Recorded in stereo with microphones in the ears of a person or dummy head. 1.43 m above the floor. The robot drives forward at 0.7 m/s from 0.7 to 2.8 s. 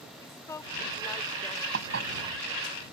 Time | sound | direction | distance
0.2 | a woman speaking | 15° left (ahead or behind) | ?
1.7 | dishes clattering | 70° right (ahead or behind) | ?